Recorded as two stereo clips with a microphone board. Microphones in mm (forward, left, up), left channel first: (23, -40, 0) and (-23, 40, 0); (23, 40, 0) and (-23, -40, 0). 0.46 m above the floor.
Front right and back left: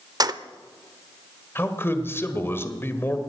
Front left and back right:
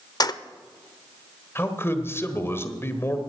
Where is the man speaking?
Straight ahead, 1.8 m.